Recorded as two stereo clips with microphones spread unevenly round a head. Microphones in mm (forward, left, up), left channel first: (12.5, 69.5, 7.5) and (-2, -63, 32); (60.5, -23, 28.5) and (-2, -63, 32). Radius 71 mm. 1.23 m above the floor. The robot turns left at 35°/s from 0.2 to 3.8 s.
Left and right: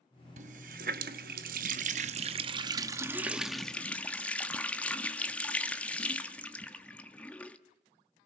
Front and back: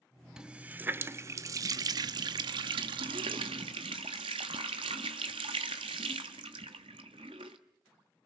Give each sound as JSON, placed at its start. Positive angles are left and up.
{"t": 0.4, "sound": "a running tap", "azimuth_deg": -70, "distance_m": 1.1}